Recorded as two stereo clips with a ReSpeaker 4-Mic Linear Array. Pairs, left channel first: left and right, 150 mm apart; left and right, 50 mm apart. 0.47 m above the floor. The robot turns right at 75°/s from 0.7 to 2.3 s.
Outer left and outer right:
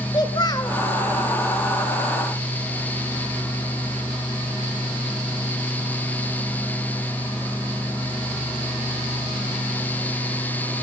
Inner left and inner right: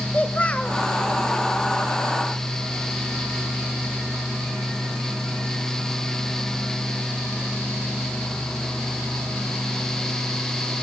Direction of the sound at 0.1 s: 30° left (ahead or behind).